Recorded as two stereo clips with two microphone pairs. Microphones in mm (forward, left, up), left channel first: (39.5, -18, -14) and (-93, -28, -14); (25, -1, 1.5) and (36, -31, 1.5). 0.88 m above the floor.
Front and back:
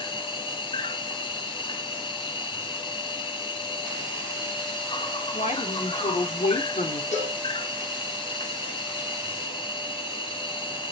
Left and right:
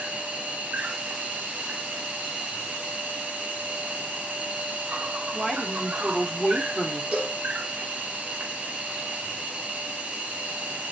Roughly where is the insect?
Ahead right.